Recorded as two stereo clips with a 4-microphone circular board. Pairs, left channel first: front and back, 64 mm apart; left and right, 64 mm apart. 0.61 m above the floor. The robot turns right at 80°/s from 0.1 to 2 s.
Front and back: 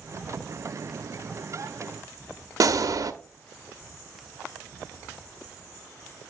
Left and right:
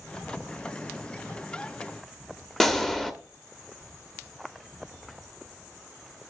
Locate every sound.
2.6 s a gunshot: 175° left, 0.6 m